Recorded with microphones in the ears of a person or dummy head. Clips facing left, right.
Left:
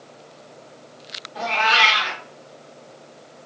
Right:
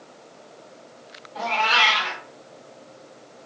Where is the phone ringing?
I don't hear a phone ringing.